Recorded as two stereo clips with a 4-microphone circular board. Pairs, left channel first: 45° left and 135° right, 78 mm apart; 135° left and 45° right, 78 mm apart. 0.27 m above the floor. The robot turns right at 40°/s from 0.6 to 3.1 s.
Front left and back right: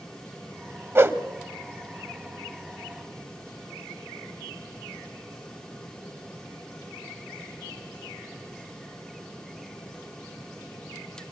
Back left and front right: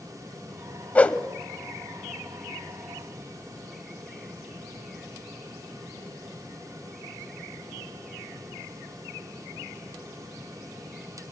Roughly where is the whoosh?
Behind.